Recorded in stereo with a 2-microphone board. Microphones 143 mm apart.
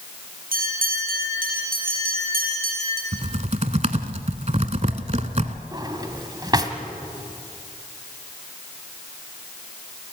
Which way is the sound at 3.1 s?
55° right (ahead or behind).